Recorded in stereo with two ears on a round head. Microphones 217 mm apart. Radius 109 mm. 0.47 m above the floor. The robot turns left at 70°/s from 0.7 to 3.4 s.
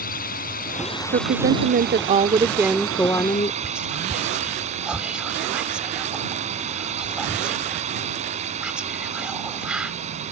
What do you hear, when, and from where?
0.0 s a drone: 40° left; by 10.3 s 150° right
1.1 s a woman speaking: 60° right; by 3.5 s 140° left
3.6 s whispering: 5° right (ahead or behind)